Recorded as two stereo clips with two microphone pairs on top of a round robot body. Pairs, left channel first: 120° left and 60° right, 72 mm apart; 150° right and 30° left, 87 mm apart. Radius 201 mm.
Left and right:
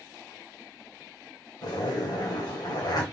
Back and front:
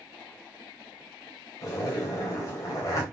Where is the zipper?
160° left, 2 m.